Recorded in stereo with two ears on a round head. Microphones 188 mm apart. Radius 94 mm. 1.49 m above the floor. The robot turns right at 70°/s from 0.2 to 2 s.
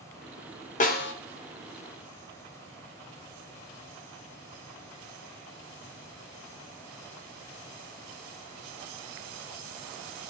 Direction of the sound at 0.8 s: 35° left (ahead or behind).